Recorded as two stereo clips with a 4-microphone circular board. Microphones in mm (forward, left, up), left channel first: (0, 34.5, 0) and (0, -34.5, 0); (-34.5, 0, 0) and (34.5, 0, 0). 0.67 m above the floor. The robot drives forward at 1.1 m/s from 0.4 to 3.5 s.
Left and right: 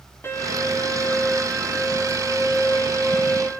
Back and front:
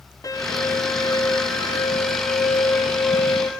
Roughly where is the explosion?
No explosion in this recording.